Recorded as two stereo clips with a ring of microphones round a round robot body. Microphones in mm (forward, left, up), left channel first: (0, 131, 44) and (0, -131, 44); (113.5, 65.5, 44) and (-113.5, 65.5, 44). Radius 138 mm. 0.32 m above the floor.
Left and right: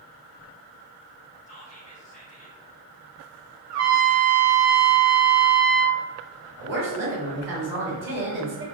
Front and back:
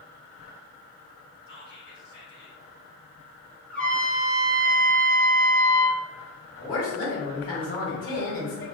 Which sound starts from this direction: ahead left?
Whispering, at 1.5 s.